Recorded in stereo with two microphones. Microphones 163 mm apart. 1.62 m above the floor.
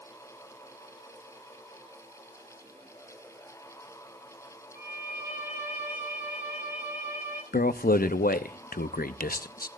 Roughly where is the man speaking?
Left.